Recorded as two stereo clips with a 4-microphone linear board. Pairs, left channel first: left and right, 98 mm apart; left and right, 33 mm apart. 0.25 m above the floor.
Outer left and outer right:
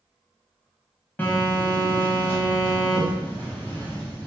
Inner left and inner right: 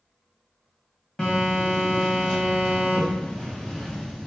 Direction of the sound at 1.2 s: 20° left (ahead or behind).